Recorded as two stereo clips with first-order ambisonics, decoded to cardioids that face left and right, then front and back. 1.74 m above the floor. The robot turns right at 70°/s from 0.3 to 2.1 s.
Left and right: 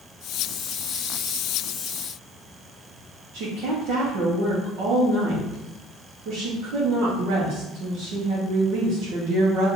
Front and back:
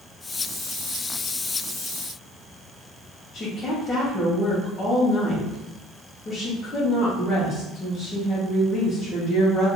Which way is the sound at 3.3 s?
70° right.